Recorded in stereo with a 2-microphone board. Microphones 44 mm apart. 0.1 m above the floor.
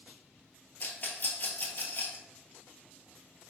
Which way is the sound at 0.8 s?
45° left (ahead or behind).